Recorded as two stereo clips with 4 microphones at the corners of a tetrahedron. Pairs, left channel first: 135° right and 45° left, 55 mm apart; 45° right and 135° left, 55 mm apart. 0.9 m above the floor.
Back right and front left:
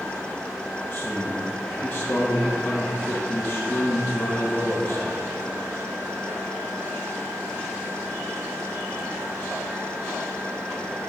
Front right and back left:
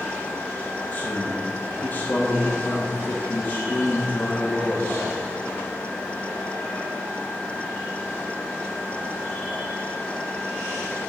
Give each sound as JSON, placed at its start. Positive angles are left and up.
{"t": 0.9, "sound": "a man speaking", "azimuth_deg": -80, "distance_m": 1.5}